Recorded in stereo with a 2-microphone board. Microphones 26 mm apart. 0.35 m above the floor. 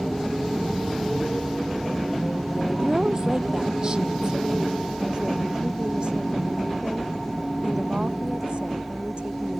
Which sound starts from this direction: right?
A woman speaking, at 2.8 s.